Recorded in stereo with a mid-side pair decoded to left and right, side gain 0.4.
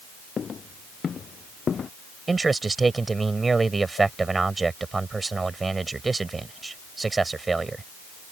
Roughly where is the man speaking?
Ahead right.